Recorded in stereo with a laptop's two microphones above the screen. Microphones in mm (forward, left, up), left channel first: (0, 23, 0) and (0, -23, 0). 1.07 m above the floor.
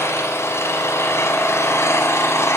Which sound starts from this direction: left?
An engine running, at 0.0 s.